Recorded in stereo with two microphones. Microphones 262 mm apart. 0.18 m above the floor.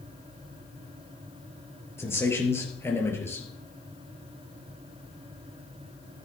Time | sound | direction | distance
2.0 | a man speaking | 10° left (ahead or behind) | 3 m